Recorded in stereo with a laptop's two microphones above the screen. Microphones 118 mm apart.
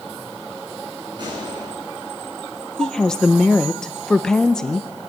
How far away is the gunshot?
About 10 m.